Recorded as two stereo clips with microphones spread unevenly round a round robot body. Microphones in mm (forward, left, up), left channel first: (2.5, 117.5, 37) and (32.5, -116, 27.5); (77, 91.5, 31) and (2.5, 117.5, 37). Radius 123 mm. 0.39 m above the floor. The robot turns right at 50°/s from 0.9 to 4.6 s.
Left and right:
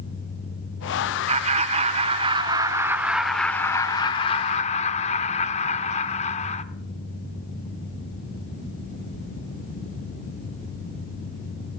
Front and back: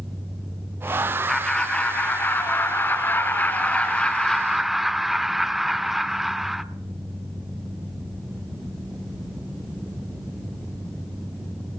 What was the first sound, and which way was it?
Laughter, 95° right.